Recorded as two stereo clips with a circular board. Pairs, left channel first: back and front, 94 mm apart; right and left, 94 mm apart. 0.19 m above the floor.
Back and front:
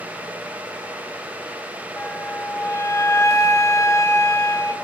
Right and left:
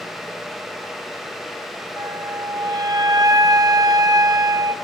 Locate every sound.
2.0 s a flute: 130° left, 0.9 m